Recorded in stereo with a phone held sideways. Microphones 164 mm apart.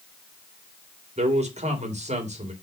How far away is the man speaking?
About 3.5 m.